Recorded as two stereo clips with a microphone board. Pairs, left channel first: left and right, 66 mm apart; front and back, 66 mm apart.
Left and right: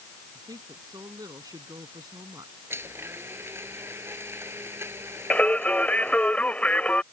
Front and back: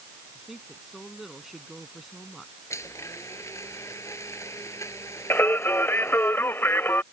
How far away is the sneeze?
I don't hear a sneeze.